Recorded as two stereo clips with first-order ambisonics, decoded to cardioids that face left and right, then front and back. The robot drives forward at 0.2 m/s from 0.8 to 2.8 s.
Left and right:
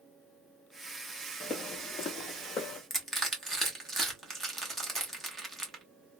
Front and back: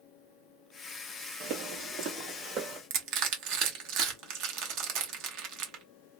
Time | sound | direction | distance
1.4 | footsteps | 160° left | 0.8 m
2.9 | crushing | 175° right | 0.8 m